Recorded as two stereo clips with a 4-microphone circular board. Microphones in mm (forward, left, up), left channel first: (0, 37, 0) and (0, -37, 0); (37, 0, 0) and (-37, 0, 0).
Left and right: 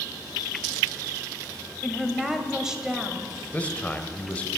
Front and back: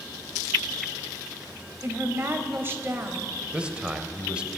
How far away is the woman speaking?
About 1.7 m.